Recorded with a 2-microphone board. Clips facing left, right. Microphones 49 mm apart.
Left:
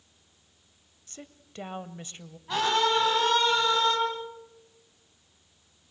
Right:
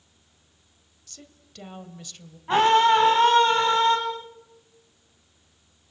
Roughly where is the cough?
No cough in this recording.